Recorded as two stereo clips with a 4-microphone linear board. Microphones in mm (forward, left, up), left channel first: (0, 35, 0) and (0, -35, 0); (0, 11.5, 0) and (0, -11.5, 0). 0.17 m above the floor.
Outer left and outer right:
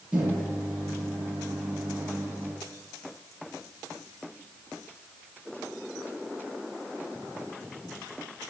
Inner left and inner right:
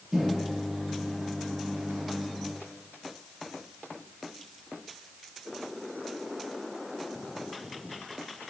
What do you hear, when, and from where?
0.1 s a microwave: 20° right (ahead or behind), 2.5 m